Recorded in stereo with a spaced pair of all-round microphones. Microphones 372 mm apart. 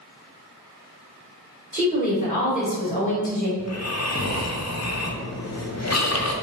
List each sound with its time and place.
1.7 s a woman speaking: 20° left (ahead or behind), 1.6 m
3.6 s snoring: 45° left (ahead or behind), 0.6 m